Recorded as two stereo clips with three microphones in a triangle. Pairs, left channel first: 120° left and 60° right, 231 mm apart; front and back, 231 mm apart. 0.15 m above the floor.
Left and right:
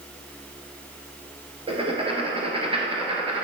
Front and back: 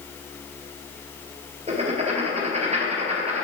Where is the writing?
125° right, 1.3 m.